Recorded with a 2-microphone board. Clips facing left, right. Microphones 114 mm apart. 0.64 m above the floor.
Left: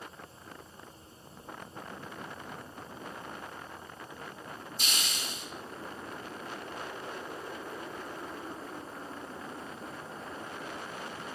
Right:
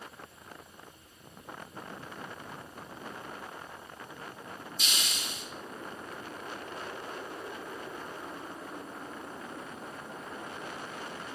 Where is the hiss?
45° left (ahead or behind), 1.2 m.